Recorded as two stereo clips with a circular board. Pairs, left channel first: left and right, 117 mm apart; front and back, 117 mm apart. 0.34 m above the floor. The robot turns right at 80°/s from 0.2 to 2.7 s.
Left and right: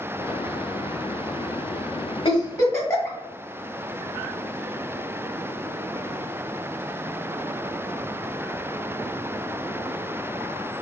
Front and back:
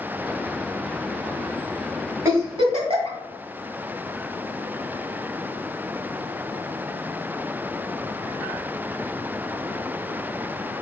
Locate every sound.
2.2 s a giggle: 115° left, 2 m; by 3.2 s 155° left, 2 m